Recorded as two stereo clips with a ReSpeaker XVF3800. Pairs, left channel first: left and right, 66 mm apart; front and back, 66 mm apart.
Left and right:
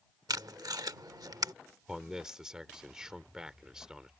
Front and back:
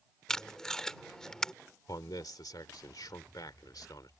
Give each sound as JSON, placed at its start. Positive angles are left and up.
{"t": 0.3, "sound": "tape being pulled", "azimuth_deg": -80}
{"t": 1.9, "sound": "a man speaking", "azimuth_deg": -10}